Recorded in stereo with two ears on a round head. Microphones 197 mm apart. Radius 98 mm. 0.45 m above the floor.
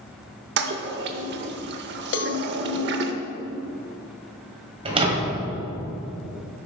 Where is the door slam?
25° right (ahead or behind), 1.8 m.